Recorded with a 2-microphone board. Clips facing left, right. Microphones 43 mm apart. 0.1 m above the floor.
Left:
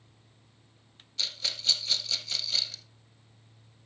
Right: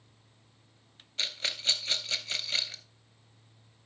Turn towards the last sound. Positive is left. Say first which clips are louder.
# right 1 dB
turn(degrees=-40)  # may be behind; listen again after turning